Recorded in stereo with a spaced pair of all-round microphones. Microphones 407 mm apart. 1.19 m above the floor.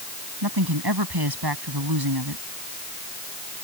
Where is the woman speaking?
65° right (ahead or behind).